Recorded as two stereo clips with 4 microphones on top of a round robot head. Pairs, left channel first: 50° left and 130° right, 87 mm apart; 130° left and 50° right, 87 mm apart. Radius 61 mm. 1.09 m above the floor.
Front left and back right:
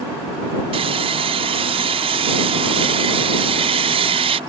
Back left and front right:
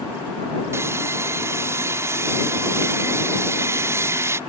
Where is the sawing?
115° right.